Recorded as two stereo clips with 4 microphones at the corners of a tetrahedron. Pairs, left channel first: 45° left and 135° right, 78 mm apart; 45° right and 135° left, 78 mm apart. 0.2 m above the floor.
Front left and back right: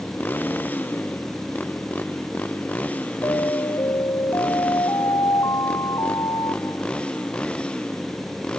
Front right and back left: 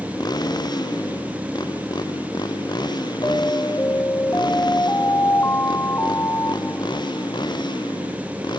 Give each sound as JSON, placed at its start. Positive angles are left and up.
{"t": 0.0, "sound": "a motorcycle", "azimuth_deg": -20}
{"t": 3.2, "sound": "an alarm", "azimuth_deg": 10}